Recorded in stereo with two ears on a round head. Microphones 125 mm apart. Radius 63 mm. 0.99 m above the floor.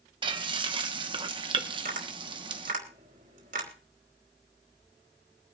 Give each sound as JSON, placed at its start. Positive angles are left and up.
{"t": 0.2, "sound": "frying", "side_deg": -35, "distance_m": 0.9}
{"t": 1.7, "sound": "tapping", "side_deg": -55, "distance_m": 2.5}